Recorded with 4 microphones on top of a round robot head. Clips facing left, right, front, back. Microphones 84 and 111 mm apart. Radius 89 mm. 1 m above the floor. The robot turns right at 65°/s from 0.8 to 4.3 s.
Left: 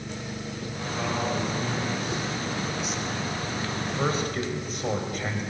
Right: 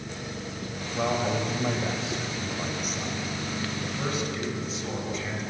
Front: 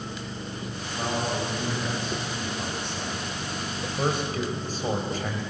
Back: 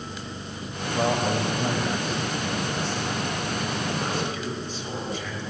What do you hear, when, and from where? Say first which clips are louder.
0.9 s a man speaking: right 2 dB, back 5 dB; 170° right, 5.5 m; by 5.4 s 50° left, 5.5 m